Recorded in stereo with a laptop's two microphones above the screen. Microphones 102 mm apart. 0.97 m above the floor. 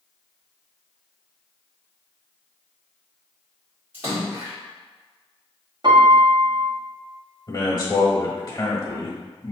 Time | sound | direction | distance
3.9 | a splash | 20° right (ahead or behind) | 1.8 m
5.8 | a piano | 50° right (ahead or behind) | 0.8 m
7.5 | a man speaking | 35° left (ahead or behind) | 1.3 m